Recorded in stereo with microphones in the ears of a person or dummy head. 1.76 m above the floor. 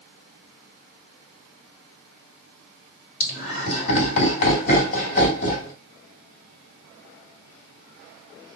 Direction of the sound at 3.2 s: 45° left (ahead or behind).